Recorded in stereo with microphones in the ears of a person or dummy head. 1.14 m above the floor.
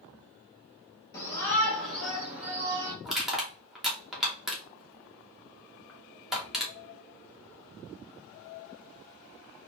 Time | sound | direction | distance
1.1 | a shout | 20° left (ahead or behind) | 2.5 m
3.0 | crushing | centre (ahead or behind) | 1.7 m